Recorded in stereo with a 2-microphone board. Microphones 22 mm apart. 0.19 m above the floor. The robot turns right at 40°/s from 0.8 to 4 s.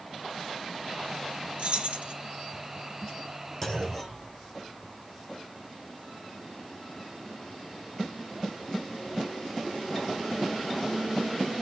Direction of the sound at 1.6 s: 55° right (ahead or behind).